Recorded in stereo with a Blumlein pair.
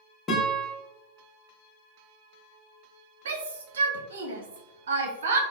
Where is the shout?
65° right, 0.6 m.